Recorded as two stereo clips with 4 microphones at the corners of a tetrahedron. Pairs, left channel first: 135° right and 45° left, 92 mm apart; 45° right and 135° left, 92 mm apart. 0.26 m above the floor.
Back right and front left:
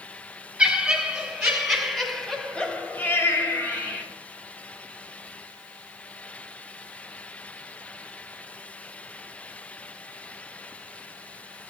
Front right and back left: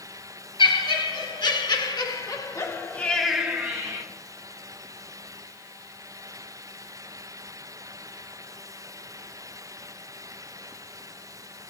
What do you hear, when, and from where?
0.6 s laughter: 35° right, 3.5 m; by 4.0 s 175° left, 1.7 m